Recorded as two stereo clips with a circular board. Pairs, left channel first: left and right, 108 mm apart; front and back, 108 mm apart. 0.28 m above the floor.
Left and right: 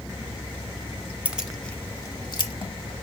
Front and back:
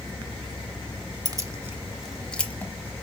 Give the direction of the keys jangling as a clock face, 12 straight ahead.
5 o'clock.